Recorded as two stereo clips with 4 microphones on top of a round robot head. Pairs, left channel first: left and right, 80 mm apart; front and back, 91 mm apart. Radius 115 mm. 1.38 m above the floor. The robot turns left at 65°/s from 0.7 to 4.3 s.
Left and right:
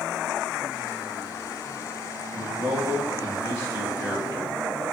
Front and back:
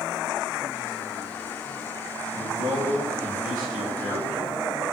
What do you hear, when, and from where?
2.3 s a man speaking: 145° right, 2.5 m; by 4.8 s 85° left, 2.5 m